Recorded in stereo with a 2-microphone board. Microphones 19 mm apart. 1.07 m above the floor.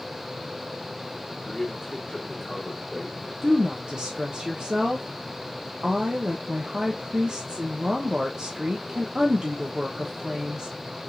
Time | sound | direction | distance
1.4 | a man speaking | 35° left (ahead or behind) | 2.5 m
3.4 | a woman speaking | 40° right (ahead or behind) | 0.8 m